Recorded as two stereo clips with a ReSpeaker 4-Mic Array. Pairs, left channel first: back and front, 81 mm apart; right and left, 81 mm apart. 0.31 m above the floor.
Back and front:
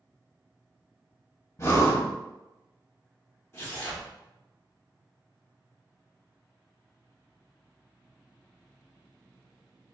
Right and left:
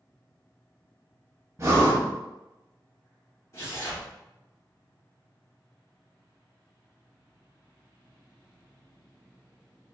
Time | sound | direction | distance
1.6 | breathing | 135° left | 0.7 m
3.5 | tearing paper | 130° right | 1.1 m